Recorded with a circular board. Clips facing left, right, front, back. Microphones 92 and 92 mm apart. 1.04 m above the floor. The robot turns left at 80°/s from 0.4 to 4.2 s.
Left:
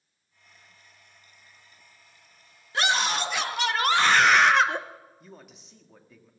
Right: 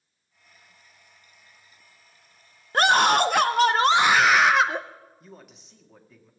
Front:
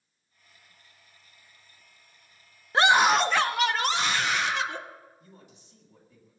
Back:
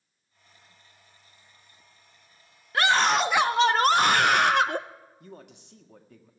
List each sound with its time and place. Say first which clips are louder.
2.7 s a scream: right 8 dB, front 2 dB; 55° right, 0.5 m; by 4.8 s 175° right, 0.5 m
5.2 s a man speaking: right 1 dB, back 7 dB; straight behind, 1.7 m